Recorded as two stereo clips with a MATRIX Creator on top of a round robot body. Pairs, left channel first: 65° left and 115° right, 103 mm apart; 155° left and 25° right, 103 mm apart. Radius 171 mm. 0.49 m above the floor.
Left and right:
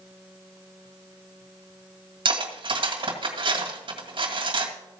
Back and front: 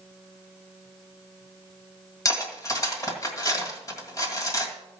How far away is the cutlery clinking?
About 2.0 m.